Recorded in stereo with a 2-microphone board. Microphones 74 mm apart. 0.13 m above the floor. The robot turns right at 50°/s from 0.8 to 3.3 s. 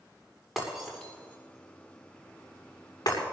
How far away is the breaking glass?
About 7.5 m.